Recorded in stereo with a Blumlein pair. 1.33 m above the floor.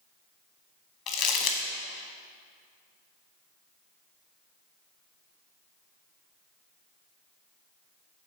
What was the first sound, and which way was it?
Crumpling, 40° left.